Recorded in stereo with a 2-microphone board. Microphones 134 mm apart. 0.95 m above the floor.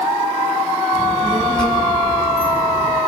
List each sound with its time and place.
0.9 s a child speaking: 40° left (ahead or behind), 8 m; by 3.0 s 25° left (ahead or behind), 9.5 m